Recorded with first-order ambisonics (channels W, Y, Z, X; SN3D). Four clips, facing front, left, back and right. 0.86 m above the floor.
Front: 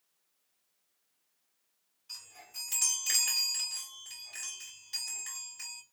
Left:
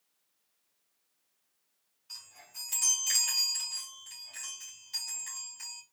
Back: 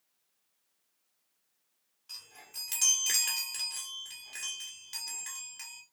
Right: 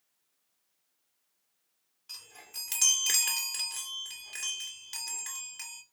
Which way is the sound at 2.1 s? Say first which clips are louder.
Right 2 dB, even; 110° right.